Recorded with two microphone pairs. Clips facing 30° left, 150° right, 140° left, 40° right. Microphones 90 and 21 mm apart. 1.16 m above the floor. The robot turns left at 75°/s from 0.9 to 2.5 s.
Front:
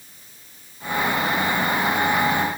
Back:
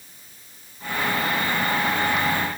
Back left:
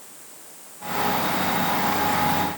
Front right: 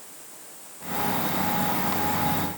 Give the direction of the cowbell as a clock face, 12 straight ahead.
No cowbell in this recording.